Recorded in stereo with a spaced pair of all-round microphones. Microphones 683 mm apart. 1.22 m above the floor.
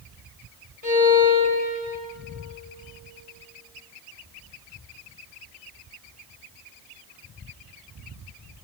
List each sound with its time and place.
0.8 s a violin: 65° left (ahead or behind), 2 m